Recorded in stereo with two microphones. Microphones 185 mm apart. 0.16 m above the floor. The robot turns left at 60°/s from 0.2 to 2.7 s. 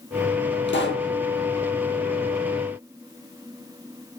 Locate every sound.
0.7 s a pop: 75° left (ahead or behind), 2.5 m; by 1.1 s 70° left (ahead or behind), 2.5 m